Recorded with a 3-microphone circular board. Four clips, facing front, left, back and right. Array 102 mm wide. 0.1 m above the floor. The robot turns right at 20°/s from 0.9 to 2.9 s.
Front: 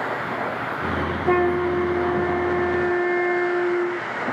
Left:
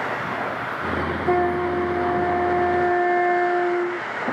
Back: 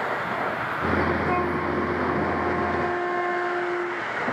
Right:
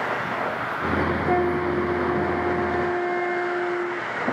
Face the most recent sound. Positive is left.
turn(degrees=25)